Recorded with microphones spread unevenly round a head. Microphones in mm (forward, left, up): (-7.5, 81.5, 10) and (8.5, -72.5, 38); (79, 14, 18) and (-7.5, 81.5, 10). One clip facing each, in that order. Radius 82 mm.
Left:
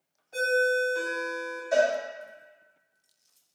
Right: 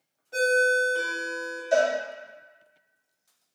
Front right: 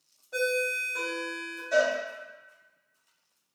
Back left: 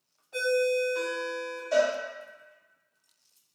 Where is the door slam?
I don't hear a door slam.